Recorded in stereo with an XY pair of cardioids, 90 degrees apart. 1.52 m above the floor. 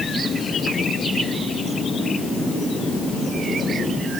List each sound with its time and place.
Only background noise.